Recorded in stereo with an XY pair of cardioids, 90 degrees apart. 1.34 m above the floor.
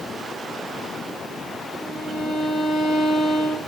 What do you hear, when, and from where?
1.8 s a violin: 65° left, 4 m